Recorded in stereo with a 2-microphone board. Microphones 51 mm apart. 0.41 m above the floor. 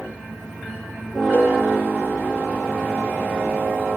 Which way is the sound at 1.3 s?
40° left (ahead or behind).